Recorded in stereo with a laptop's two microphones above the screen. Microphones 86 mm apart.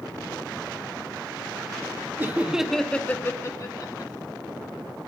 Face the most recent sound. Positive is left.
turn(degrees=45)  # may be behind; listen again after turning